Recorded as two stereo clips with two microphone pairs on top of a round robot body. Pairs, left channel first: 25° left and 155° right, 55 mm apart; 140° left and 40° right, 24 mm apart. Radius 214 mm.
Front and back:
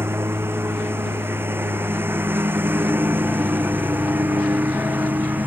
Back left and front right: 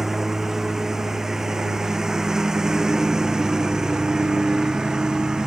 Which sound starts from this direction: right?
A lawn mower, at 0.0 s.